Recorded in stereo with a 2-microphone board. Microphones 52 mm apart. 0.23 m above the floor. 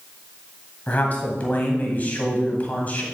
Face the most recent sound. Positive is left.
turn(degrees=30)  # may be behind; listen again after turning